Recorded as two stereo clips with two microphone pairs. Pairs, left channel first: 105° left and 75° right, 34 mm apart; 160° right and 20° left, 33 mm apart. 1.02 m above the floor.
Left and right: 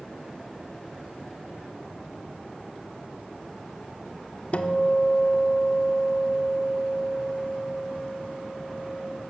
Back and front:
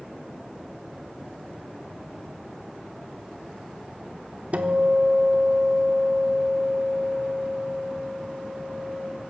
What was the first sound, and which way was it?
A guitar, 65° left.